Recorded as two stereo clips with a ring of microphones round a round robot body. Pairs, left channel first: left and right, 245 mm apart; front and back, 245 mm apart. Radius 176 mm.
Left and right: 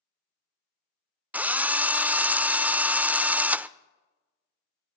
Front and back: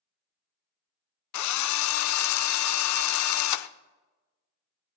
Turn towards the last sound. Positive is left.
turn(degrees=-5)